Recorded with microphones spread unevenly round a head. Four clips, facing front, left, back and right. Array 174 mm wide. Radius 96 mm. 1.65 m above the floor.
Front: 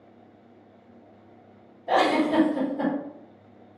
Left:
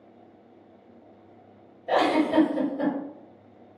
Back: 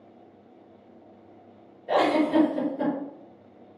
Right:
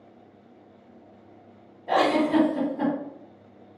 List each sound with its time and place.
1.9 s a giggle: 35° right, 1.9 m